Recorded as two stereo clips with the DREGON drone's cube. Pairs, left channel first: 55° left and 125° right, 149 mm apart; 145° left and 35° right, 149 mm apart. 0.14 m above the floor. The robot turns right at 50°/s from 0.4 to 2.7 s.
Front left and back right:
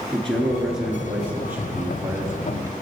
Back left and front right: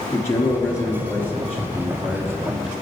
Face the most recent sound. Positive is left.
turn(degrees=-110)